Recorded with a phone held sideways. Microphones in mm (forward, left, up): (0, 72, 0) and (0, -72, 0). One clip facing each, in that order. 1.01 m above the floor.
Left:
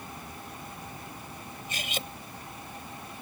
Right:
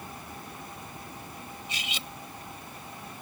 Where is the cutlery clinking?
50° left (ahead or behind).